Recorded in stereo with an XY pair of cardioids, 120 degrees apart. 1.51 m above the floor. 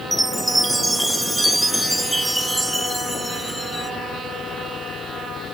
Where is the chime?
10° right, 1.1 m.